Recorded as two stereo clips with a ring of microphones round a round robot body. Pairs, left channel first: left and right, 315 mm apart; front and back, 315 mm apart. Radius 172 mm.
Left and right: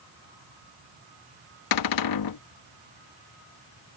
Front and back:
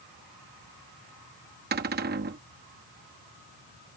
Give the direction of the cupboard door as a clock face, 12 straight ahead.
8 o'clock.